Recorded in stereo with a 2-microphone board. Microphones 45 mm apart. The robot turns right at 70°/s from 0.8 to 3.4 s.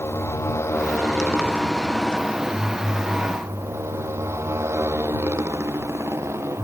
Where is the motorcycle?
90° left; by 6.7 s 90° right.